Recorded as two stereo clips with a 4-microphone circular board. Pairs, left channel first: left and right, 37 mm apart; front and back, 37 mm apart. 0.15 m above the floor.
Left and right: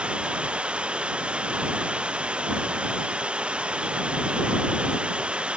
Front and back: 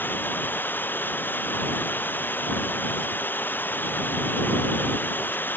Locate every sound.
0.0 s running water: 30° right